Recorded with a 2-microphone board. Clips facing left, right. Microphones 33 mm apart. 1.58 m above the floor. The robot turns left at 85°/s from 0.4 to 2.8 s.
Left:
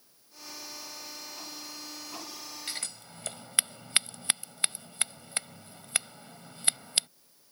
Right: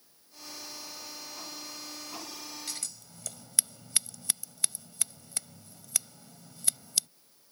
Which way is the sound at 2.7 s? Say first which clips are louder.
Left 3 dB; 35° left (ahead or behind).